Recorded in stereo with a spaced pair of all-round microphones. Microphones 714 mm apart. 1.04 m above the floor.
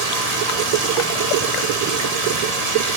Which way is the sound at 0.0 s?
60° right (ahead or behind).